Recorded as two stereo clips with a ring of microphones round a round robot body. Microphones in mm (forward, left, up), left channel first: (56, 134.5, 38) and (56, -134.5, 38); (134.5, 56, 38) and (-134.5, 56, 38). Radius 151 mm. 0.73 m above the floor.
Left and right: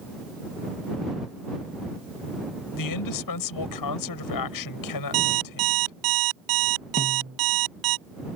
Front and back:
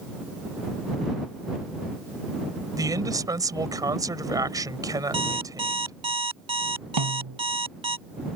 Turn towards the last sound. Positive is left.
turn(degrees=-155)